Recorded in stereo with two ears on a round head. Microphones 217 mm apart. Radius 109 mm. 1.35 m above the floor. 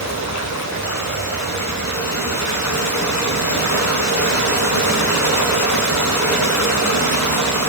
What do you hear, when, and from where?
0.0 s running water: 60° left (ahead or behind), 10 m